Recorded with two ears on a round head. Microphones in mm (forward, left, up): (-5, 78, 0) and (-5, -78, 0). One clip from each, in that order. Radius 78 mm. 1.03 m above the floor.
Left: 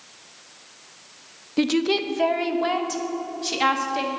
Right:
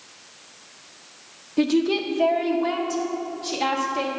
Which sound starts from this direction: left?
A woman speaking, at 1.6 s.